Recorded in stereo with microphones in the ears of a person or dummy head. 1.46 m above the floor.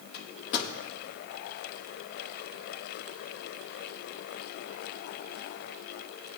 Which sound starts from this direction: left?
A microwave, at 0.1 s.